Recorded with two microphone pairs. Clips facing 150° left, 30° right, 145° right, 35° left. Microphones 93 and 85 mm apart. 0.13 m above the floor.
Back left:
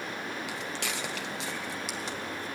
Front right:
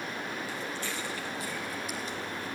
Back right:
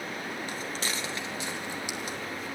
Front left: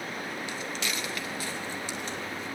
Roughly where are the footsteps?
Behind.